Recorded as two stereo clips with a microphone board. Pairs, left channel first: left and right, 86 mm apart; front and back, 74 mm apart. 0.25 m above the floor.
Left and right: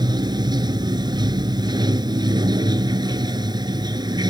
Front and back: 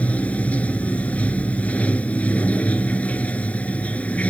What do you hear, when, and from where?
0.0 s running water: 70° right